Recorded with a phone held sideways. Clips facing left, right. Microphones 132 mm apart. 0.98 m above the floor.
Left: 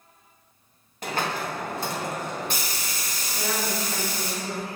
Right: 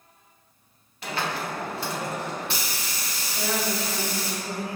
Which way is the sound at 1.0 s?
45° left (ahead or behind).